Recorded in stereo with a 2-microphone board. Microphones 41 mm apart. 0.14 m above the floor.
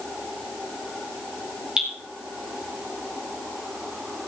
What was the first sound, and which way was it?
Dripping, 25° right (ahead or behind).